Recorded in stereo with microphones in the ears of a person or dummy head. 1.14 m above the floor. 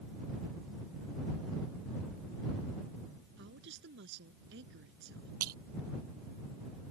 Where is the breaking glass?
50° right (ahead or behind).